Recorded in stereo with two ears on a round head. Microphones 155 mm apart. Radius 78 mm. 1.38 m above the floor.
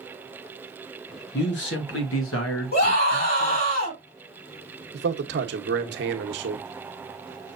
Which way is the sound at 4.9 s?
75° right (ahead or behind).